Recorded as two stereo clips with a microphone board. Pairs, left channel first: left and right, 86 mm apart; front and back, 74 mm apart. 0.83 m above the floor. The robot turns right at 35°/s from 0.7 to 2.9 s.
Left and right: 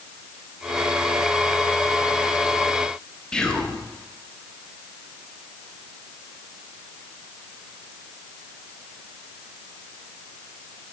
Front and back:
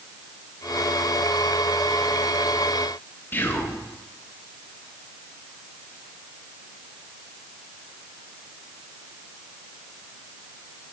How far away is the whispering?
About 0.9 m.